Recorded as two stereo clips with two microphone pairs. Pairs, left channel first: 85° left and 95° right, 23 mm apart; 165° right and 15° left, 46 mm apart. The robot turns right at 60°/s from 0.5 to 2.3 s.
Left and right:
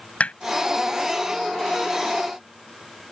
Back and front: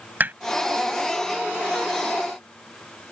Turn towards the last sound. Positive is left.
turn(degrees=175)